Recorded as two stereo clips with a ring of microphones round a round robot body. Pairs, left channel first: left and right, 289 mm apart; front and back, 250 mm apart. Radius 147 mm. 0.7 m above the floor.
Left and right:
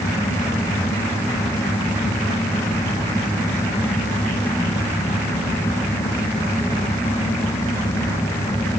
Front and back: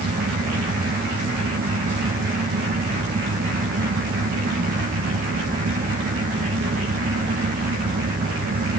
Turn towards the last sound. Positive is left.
No sound to turn to.